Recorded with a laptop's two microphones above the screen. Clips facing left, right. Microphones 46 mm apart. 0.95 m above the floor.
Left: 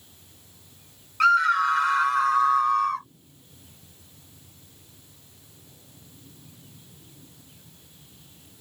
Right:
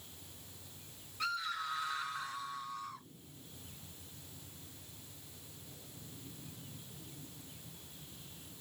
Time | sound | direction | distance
1.2 | a scream | 75° left (ahead or behind) | ?